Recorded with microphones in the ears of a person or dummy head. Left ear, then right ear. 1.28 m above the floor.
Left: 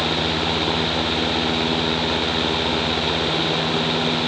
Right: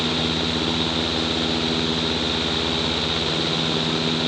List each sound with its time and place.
Only background noise.